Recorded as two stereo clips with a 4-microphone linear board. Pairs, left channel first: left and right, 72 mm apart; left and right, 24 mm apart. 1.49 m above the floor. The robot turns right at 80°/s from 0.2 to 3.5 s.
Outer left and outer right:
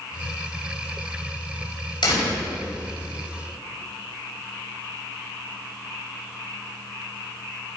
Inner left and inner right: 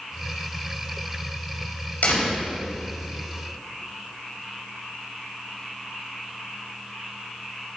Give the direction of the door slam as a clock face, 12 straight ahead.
9 o'clock.